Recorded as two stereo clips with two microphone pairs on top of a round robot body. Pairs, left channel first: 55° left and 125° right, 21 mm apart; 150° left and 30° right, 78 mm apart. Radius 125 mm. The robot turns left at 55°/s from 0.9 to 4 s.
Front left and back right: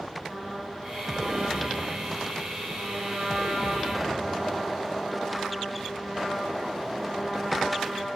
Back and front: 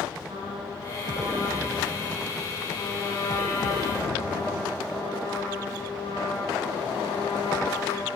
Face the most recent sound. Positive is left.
turn(degrees=145)